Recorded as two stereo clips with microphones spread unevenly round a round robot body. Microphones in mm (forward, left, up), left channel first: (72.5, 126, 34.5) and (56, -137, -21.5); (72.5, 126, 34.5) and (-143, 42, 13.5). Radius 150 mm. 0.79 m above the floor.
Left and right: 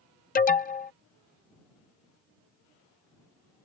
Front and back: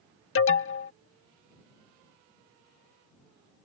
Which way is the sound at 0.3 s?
25° left.